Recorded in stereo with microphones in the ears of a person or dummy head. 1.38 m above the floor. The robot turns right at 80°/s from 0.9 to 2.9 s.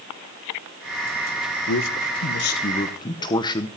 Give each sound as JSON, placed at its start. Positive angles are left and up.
{"t": 1.7, "sound": "a man speaking", "azimuth_deg": 65, "distance_m": 1.2}